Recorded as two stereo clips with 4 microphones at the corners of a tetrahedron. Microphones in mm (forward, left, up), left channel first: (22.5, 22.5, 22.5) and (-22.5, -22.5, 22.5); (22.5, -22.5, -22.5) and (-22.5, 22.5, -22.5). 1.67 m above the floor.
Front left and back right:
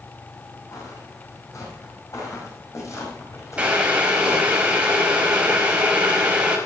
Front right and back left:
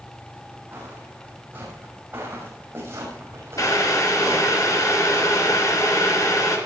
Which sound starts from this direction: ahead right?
Boiling, at 3.6 s.